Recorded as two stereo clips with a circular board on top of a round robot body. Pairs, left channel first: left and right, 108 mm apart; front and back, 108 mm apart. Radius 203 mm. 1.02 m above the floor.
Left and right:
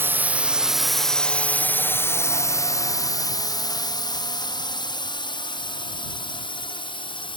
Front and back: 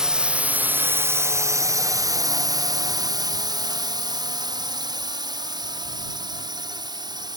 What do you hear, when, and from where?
0.0 s a drone: 110° right; by 7.4 s 130° left